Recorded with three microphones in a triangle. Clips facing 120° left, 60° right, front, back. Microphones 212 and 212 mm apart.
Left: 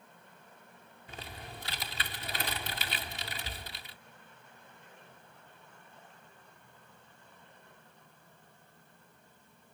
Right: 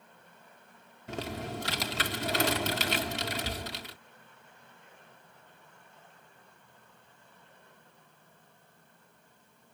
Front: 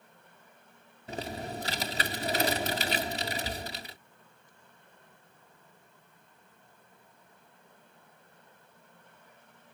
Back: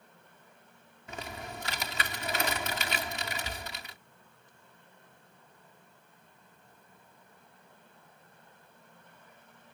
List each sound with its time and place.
1.1 s typing on a keyboard: 55° right